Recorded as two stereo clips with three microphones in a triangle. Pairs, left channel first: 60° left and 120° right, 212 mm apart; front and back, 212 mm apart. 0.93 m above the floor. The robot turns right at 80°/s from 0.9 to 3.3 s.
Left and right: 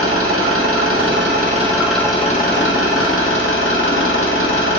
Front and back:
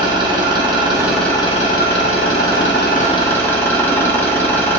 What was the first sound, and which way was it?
An engine running, 110° right.